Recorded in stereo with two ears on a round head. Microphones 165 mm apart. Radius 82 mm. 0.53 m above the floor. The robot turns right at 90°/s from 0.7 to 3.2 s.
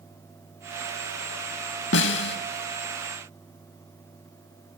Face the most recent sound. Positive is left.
turn(degrees=-170)